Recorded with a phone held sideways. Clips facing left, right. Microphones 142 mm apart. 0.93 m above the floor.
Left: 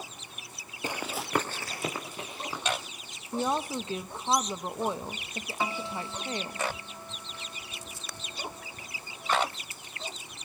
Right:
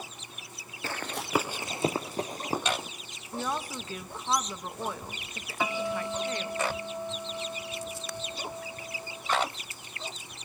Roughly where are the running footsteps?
Centre.